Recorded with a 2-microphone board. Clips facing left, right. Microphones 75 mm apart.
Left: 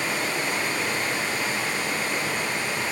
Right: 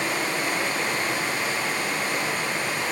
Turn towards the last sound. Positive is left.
turn(degrees=-55)  # may be behind; listen again after turning